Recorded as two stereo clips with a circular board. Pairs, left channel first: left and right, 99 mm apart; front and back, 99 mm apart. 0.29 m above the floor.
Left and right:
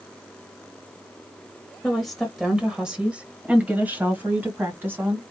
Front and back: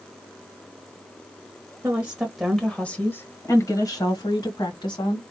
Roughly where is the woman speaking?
Behind.